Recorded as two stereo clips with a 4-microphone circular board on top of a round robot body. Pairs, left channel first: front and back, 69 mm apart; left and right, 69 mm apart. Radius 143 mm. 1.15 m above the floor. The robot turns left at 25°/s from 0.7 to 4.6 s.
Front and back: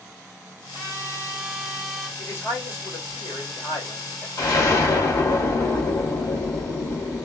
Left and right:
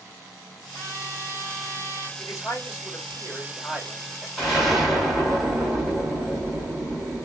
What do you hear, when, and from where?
0.7 s a trumpet: 120° left, 2 m; by 2.1 s 85° left, 2 m
2.2 s a man speaking: 60° left, 2.5 m; by 4.3 s 5° left, 2.5 m
4.4 s an explosion: 5° left, 1.6 m; by 7.2 s straight ahead, 1.6 m